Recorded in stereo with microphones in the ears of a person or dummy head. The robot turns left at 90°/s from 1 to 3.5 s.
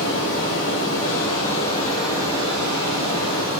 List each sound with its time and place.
0.0 s running water: 90° left, 1.5 m; by 3.6 s 135° right, 1.5 m